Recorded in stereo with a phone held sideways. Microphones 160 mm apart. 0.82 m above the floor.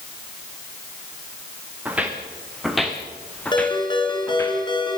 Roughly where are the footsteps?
Centre.